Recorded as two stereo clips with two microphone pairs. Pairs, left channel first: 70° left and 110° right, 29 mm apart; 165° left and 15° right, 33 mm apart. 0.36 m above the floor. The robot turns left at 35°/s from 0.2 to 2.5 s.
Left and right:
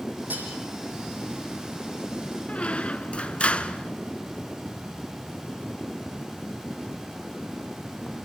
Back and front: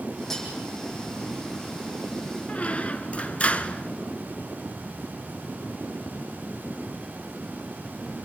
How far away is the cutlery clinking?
About 8 m.